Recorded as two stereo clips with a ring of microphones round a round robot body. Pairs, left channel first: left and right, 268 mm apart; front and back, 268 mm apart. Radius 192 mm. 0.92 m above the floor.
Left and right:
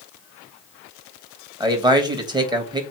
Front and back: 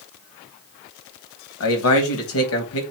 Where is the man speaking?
20° right, 1.5 m.